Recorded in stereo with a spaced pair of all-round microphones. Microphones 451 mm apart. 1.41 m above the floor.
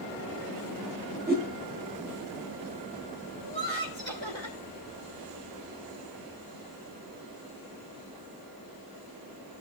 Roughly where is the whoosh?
Right.